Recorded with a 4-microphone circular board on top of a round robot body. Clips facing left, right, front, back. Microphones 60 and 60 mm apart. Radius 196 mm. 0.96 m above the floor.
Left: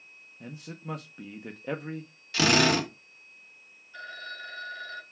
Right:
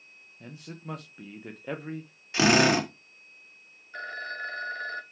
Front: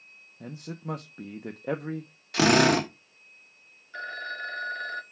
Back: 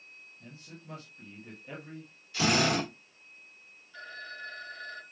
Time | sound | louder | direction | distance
0.4 | a man speaking | left 1 dB, front 14 dB | straight ahead | 1.2 m
2.3 | a drill | right 2 dB, front 7 dB | 25° right | 2.5 m
3.9 | a phone ringing | right 5 dB, front 8 dB | 40° right | 1.0 m